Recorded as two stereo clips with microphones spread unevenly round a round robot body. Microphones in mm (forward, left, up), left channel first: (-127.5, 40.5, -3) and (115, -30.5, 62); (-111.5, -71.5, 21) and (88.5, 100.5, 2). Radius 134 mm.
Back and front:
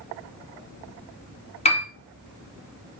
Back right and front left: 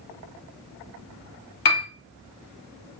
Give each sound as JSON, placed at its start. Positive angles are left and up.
{"t": 1.6, "sound": "a piano", "azimuth_deg": -130, "distance_m": 1.5}